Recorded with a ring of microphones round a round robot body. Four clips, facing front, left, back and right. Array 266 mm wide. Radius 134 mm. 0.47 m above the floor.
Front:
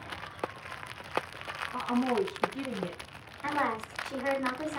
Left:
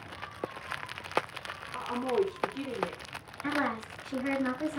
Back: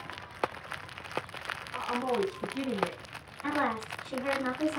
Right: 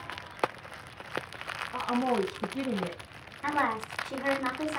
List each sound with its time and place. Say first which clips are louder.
1.7 s a woman speaking: right 1 dB, front 2 dB; 80° right, 2.5 m; by 3.0 s 105° right, 2.5 m
3.4 s a woman speaking: right 3 dB, even; 75° right, 4 m